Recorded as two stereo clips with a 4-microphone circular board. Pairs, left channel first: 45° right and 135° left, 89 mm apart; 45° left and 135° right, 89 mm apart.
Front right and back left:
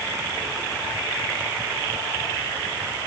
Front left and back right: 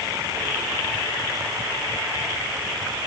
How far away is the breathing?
No breathing in this recording.